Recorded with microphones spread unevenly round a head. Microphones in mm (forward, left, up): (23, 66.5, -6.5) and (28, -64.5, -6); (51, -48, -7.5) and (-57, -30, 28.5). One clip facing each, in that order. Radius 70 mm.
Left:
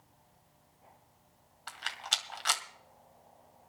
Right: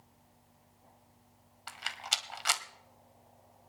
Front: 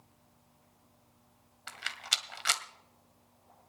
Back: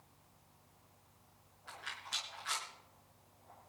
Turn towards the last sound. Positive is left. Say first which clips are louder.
# even, front 5 dB
turn(degrees=-5)